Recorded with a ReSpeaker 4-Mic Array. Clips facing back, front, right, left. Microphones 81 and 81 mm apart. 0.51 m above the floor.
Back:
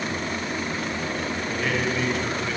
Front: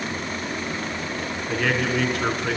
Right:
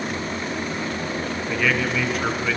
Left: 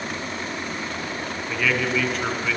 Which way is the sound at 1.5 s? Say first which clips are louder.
Front 4 dB, even; 5° right.